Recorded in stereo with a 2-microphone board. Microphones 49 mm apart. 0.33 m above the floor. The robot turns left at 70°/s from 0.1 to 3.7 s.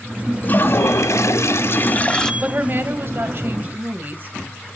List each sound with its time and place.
0.4 s a toilet flushing: 145° left, 0.8 m; by 2.3 s 15° left, 0.8 m
2.4 s a woman speaking: 40° right, 1.7 m; by 4.7 s 130° right, 1.7 m